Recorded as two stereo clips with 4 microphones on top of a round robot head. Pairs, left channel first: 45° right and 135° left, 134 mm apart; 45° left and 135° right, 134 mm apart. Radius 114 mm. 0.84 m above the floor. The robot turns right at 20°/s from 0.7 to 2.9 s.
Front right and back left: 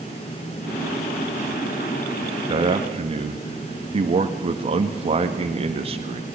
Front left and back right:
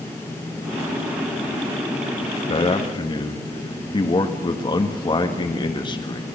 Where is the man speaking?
90° left, 1.7 m; by 6.2 s 95° left, 1.7 m.